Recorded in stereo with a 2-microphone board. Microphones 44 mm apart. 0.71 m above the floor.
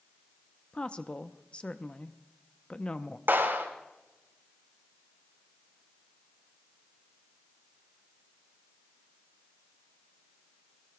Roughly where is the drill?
No drill in this recording.